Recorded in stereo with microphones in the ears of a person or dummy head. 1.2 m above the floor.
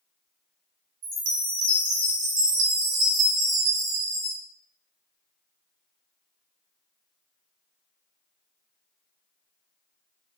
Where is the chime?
85° right, 1.1 m.